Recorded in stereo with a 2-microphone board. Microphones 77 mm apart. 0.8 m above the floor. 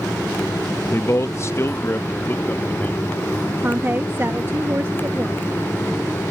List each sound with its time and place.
0.9 s a man speaking: 35° left (ahead or behind); by 3.1 s 30° left (ahead or behind)
3.6 s a woman speaking: 30° right (ahead or behind)